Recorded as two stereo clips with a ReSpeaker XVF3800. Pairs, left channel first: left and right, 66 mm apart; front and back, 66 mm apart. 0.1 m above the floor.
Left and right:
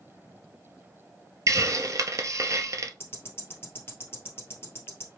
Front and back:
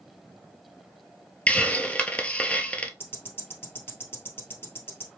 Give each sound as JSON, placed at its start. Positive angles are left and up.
{"t": 1.5, "sound": "a hiss", "azimuth_deg": -70, "distance_m": 0.6}
{"t": 3.0, "sound": "ticking", "azimuth_deg": 45, "distance_m": 1.7}